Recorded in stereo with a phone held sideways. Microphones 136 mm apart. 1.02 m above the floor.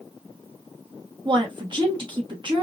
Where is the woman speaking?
35° right (ahead or behind), 1.2 m.